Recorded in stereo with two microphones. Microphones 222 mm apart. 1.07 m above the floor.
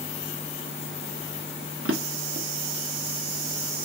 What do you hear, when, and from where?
1.9 s a drawer: 70° right (ahead or behind), 1.0 m